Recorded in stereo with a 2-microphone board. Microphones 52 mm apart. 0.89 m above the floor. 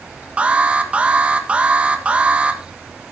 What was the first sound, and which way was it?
An alarm, 25° right (ahead or behind).